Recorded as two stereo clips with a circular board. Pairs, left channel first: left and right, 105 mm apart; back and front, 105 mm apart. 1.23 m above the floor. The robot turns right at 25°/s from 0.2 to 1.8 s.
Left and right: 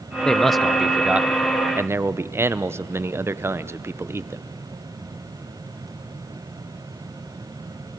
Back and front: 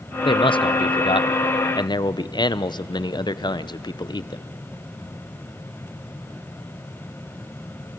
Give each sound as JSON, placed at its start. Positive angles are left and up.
{"t": 0.2, "sound": "a man speaking", "azimuth_deg": 170, "distance_m": 0.7}